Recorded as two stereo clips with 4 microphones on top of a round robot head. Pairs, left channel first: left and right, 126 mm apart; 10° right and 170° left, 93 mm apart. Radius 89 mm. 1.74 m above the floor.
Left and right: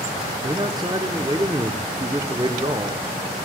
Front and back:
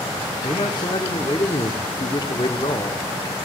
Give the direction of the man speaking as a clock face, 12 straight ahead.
1 o'clock.